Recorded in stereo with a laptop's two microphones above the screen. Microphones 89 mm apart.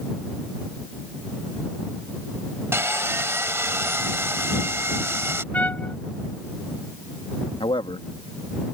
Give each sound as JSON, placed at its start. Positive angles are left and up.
{"t": 2.7, "sound": "sawing", "side_deg": -30}
{"t": 5.5, "sound": "a trumpet", "side_deg": 15}
{"t": 7.6, "sound": "a man speaking", "side_deg": 70}